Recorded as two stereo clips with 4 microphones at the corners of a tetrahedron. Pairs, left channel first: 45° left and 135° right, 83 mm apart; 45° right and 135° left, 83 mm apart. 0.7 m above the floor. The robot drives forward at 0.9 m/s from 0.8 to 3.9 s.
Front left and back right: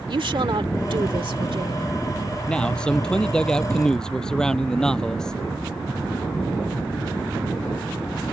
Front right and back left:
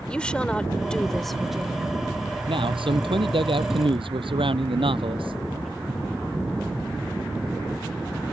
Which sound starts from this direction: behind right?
A woman speaking, at 0.1 s.